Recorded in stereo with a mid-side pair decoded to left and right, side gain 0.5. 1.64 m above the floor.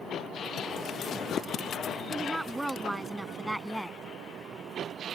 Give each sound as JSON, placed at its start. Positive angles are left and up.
{"t": 2.1, "sound": "a woman speaking", "azimuth_deg": -10}